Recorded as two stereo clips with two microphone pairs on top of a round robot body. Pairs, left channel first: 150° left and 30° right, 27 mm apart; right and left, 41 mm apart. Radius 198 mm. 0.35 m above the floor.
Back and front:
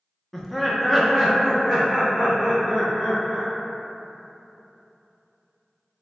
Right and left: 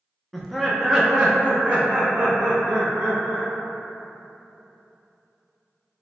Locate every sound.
0.3 s laughter: straight behind, 0.8 m; by 3.5 s 40° left, 1.8 m